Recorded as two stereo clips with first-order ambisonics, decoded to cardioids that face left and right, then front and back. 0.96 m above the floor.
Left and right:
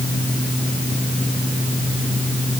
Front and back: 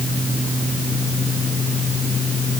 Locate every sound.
Only background noise.